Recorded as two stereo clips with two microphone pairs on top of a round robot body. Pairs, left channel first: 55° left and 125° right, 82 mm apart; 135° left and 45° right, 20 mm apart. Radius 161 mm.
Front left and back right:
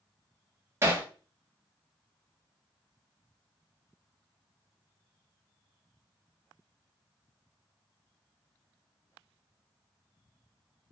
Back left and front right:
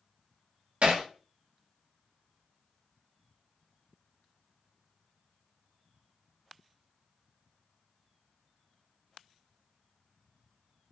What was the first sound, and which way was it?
Hammering, 60° right.